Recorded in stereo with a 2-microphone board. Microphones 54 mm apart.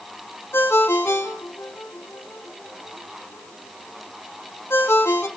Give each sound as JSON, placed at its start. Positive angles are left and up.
{"t": 0.5, "sound": "a ringtone", "side_deg": 50, "distance_m": 1.1}